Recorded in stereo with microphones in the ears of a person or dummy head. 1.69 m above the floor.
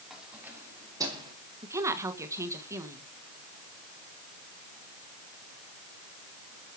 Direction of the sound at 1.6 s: 15° right (ahead or behind).